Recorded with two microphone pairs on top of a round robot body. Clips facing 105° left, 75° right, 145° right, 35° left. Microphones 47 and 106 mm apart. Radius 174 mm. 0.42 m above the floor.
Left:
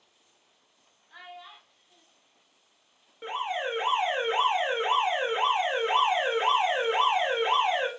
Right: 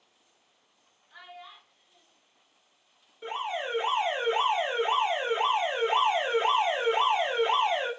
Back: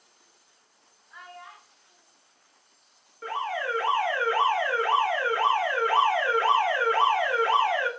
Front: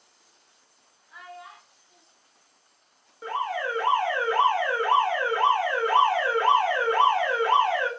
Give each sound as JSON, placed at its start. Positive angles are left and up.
{"t": 1.1, "sound": "a child speaking", "azimuth_deg": 115, "distance_m": 2.0}
{"t": 3.2, "sound": "an alarm", "azimuth_deg": 95, "distance_m": 1.8}